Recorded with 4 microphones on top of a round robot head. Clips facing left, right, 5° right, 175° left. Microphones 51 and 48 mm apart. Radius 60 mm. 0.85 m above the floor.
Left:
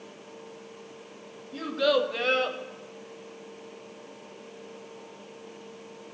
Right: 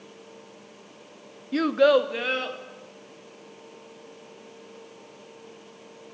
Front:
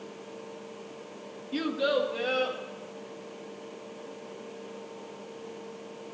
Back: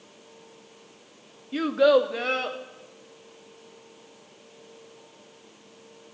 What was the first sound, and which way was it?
A child speaking, 105° right.